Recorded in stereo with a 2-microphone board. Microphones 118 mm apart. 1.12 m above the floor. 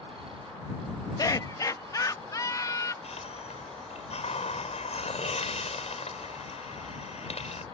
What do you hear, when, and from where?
1.2 s laughter: 30° left (ahead or behind)
3.0 s a hiss: 65° left (ahead or behind)